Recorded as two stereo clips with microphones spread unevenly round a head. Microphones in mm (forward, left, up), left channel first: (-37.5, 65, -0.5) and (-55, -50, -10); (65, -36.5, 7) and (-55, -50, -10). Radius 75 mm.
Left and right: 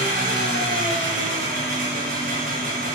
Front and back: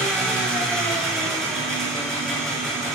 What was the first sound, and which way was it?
An engine running, 80° right.